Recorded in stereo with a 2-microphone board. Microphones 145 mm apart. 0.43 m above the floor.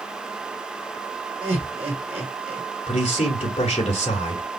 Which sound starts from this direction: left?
A man speaking, at 2.9 s.